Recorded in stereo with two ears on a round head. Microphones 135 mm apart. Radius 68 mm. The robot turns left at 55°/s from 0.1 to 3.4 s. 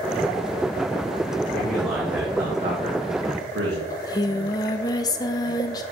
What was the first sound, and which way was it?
A man speaking, 15° left.